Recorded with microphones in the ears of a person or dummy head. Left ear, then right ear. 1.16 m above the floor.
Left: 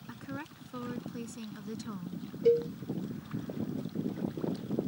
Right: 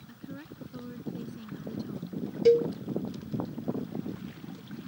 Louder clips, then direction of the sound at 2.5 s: Right 4 dB; 40° right (ahead or behind).